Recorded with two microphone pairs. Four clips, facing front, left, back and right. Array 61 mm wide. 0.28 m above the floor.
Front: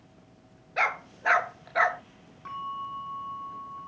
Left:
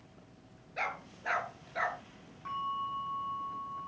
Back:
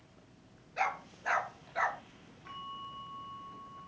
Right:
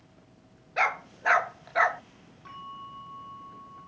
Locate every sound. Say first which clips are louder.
0.8 s a dog barking: right 10 dB, front 6 dB; 45° right, 0.9 m
2.5 s a bell: left 7 dB, front 9 dB; 25° left, 9 m